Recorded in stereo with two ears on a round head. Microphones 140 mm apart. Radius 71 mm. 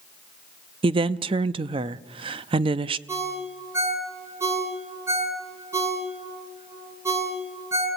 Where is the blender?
No blender in this recording.